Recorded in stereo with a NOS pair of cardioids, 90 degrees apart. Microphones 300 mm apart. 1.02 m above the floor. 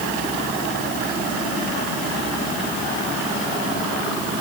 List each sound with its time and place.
Only background noise.